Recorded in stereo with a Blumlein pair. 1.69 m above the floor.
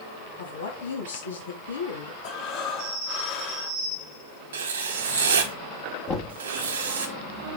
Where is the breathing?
40° left, 1.8 m.